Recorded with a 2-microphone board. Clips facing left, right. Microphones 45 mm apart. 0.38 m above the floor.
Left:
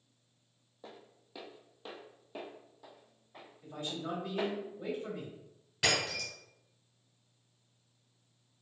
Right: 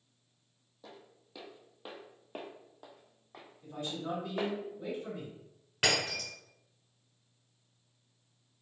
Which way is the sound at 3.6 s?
10° left (ahead or behind).